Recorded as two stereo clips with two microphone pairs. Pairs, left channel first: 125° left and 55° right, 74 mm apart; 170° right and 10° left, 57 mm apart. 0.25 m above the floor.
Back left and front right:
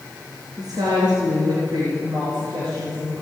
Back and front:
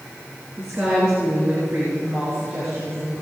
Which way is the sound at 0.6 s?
55° right.